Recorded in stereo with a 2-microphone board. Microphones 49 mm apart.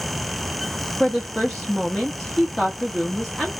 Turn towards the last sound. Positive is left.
turn(degrees=0)  # may be behind; listen again after turning